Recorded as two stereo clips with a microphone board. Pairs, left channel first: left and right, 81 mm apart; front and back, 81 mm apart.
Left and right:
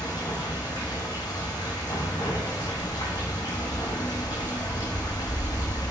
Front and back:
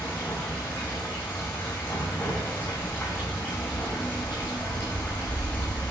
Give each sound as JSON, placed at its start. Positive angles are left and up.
{"t": 0.0, "sound": "running water", "azimuth_deg": 65, "distance_m": 3.0}